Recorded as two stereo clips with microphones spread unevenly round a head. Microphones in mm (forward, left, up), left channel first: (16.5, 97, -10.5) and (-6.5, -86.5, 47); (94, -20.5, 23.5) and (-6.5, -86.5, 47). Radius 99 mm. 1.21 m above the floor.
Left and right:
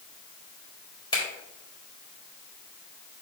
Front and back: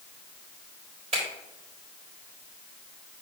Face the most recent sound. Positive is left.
turn(degrees=155)